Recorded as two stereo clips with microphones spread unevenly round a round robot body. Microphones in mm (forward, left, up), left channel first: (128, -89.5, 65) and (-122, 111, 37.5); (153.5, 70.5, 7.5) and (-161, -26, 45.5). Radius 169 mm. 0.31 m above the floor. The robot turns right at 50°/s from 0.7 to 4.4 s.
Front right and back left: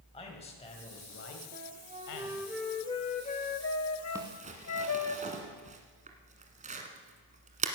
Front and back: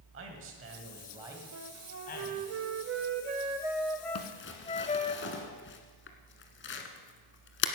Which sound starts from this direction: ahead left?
Crumpling, at 4.2 s.